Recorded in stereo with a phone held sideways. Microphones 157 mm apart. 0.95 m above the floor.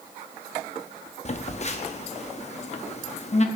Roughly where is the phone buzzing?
Left.